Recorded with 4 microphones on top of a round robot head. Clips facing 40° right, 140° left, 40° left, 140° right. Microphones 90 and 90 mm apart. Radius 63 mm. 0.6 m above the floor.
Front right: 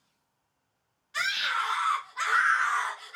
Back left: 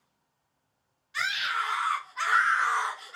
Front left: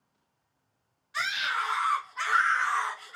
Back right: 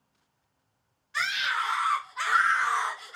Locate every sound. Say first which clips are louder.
1.1 s a scream: even, back right 1 dB; 35° right, 1.3 m; by 3.2 s 165° left, 1.2 m